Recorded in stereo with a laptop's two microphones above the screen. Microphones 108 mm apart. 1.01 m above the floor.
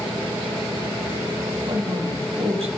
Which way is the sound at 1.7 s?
65° right (ahead or behind).